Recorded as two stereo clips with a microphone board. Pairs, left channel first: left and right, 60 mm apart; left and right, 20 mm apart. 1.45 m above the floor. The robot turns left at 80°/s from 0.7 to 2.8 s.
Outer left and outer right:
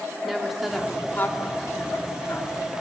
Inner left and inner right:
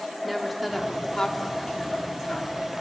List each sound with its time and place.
0.2 s a woman speaking: 175° right, 3 m; by 2.7 s 25° left, 3 m